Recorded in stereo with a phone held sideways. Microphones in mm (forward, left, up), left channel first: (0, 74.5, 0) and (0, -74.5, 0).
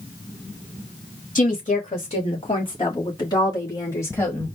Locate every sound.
1.4 s a woman speaking: 55° left (ahead or behind), 1.8 m; by 4.5 s 15° left (ahead or behind), 2.5 m